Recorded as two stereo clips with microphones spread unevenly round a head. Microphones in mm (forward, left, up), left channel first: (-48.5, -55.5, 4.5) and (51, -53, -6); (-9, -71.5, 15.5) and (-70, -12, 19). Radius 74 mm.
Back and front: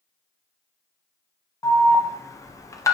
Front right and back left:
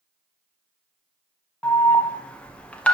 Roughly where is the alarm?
Behind right.